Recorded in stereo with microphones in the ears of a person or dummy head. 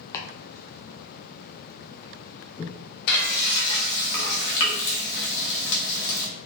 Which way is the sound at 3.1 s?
55° left (ahead or behind).